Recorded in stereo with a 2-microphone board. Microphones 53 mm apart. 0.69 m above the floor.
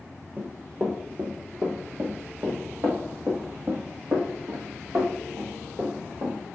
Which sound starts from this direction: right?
Running footsteps, at 0.4 s.